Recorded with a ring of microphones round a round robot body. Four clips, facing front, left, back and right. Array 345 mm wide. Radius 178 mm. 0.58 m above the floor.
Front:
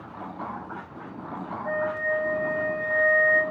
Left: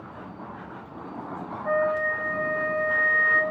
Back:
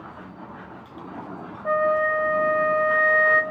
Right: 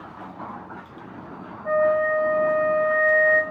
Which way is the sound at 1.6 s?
Straight behind.